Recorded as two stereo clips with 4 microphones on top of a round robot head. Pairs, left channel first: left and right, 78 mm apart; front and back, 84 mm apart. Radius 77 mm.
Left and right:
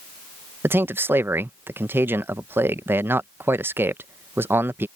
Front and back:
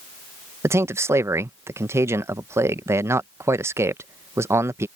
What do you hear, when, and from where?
0.6 s a man speaking: 140° right